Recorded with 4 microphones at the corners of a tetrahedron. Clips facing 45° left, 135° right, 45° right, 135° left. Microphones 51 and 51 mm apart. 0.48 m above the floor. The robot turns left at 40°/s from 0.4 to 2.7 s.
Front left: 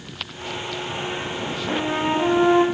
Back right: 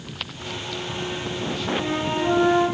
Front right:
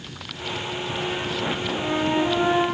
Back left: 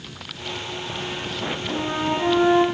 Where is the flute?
80° left, 9 m; by 2.6 s 45° left, 9 m.